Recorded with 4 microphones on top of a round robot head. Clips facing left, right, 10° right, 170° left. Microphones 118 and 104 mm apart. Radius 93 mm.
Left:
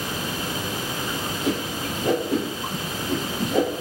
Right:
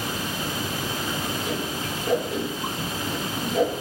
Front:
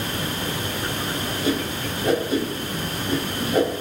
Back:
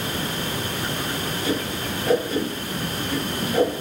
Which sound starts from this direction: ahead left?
A whoosh, at 1.4 s.